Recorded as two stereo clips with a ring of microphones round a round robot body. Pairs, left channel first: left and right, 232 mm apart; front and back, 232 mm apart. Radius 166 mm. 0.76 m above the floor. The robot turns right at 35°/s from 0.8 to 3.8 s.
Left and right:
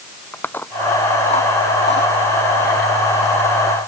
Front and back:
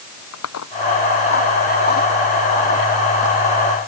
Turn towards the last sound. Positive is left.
turn(degrees=115)